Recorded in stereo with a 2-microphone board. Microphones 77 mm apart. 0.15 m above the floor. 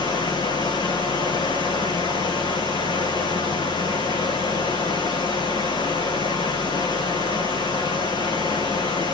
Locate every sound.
0.0 s running water: 65° left (ahead or behind), 2.5 m